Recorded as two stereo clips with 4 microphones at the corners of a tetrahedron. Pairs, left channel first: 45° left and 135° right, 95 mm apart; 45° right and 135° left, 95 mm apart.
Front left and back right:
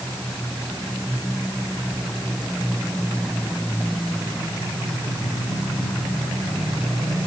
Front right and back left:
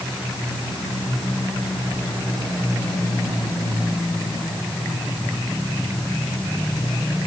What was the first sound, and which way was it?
Only background noise.